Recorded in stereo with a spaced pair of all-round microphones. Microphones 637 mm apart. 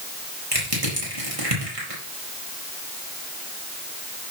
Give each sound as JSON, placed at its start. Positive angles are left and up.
{"t": 0.5, "sound": "crushing", "side_deg": -55, "distance_m": 5.5}